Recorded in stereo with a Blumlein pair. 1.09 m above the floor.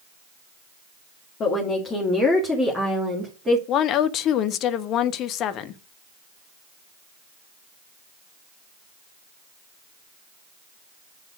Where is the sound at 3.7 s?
35° left, 0.8 m.